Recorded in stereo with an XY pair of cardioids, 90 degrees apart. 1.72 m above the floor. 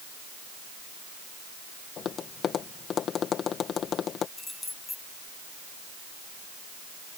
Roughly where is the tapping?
Ahead left.